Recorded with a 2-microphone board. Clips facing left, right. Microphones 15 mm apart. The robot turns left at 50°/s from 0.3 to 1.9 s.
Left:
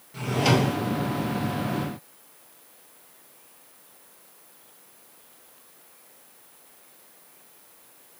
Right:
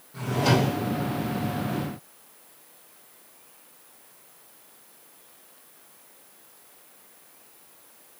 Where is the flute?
I don't hear a flute.